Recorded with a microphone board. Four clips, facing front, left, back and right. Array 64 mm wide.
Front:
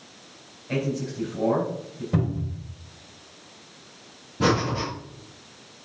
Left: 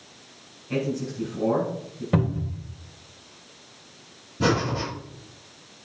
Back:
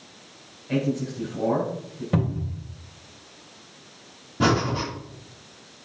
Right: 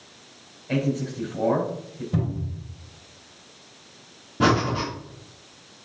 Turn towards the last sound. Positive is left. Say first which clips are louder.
# right 3 dB, back 1 dB
turn(degrees=-120)